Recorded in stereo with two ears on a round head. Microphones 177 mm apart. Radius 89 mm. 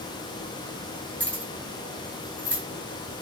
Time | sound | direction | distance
1.2 | keys jangling | 5° left (ahead or behind) | 1.0 m